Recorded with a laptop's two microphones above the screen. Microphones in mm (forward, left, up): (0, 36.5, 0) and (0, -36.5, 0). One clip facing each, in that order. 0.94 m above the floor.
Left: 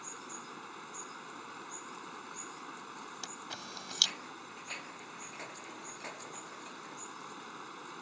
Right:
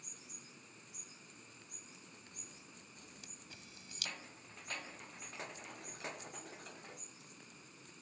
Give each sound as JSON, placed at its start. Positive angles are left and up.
{"t": 0.0, "sound": "running water", "side_deg": 75}
{"t": 3.2, "sound": "a camera shutter", "side_deg": 80}